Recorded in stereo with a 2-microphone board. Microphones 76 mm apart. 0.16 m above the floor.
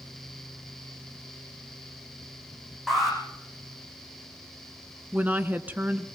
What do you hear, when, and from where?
2.9 s an alarm: centre (ahead or behind), 8 m
5.1 s a woman speaking: 20° right (ahead or behind), 1.5 m